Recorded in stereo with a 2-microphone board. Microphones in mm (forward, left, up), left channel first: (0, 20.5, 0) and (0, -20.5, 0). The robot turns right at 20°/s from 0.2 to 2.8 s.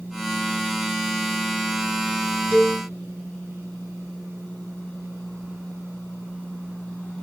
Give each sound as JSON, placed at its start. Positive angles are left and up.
{"t": 2.5, "sound": "a cowbell", "side_deg": -25, "distance_m": 2.5}